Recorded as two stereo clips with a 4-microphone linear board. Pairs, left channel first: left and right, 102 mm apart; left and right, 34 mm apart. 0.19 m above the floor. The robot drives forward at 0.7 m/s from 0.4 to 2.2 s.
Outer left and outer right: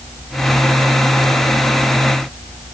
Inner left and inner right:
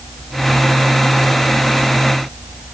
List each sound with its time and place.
Only background noise.